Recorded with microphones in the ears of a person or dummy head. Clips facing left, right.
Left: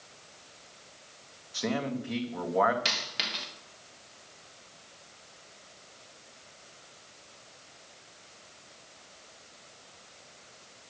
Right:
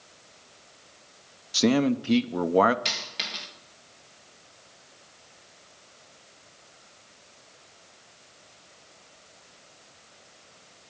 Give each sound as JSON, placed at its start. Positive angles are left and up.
{"t": 1.5, "sound": "a man speaking", "side_deg": -55, "distance_m": 0.7}
{"t": 2.9, "sound": "a dropped coin", "side_deg": 10, "distance_m": 1.5}